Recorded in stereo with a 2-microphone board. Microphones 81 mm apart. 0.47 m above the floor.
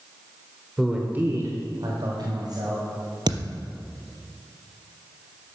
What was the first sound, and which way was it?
A man speaking, centre (ahead or behind).